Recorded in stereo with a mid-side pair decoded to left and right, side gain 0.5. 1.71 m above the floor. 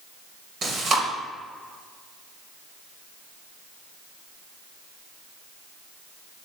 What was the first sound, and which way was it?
Chewing, 50° right.